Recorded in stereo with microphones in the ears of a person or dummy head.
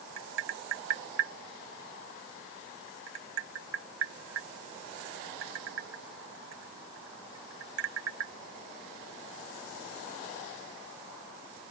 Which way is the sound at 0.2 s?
70° right (ahead or behind).